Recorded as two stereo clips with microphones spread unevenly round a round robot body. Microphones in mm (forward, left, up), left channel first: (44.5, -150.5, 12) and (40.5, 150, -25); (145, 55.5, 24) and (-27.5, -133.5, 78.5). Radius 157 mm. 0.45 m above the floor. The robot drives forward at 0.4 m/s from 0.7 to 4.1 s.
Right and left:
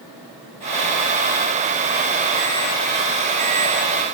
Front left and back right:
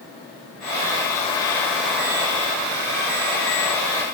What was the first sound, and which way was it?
Only background noise.